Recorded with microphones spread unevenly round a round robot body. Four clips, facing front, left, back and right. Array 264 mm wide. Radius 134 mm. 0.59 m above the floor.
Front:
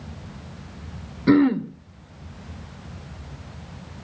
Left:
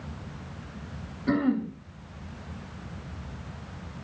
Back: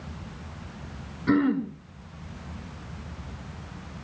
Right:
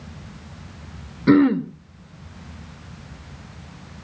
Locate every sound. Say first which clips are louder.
1.3 s throat clearing: right 10 dB, front 6 dB; 70° right, 1.1 m